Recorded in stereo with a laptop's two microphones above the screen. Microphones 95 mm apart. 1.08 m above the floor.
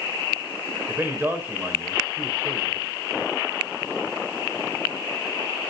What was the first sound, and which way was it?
A man speaking, 25° right (ahead or behind).